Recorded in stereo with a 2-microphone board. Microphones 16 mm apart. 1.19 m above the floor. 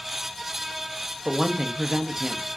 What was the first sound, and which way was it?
A woman speaking, 50° right (ahead or behind).